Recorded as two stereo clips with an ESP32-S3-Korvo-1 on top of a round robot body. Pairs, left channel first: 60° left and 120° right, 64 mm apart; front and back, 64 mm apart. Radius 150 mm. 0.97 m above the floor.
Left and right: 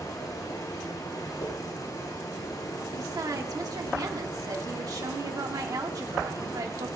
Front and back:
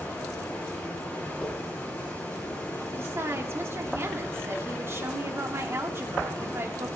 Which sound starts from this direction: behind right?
A woman speaking, at 2.9 s.